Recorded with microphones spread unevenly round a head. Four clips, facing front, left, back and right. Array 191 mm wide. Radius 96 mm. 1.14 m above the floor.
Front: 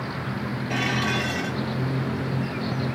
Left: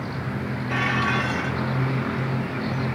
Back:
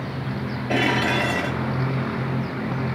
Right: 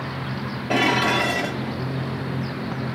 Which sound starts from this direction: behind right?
Dishes clattering, at 0.7 s.